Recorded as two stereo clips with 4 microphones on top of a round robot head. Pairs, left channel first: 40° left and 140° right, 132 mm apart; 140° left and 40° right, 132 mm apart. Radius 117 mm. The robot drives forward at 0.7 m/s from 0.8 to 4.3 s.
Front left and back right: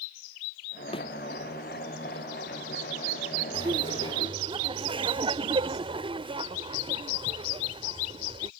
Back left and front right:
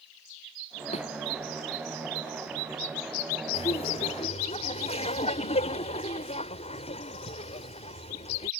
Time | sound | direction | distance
0.9 | a thud | 95° left | ?
3.5 | laughter | 175° left | ?